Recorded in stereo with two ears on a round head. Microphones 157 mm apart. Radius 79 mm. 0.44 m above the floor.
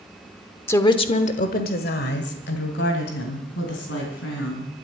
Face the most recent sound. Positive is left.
turn(degrees=80)